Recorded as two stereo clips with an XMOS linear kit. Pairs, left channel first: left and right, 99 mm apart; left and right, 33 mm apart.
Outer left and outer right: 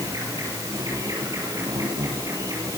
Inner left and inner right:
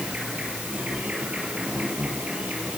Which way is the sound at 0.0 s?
35° right (ahead or behind).